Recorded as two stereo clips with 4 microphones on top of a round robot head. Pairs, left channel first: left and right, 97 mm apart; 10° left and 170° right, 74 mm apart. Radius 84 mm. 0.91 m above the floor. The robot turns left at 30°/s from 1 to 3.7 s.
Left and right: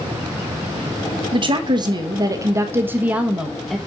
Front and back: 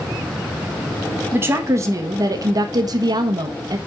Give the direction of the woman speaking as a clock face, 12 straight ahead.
4 o'clock.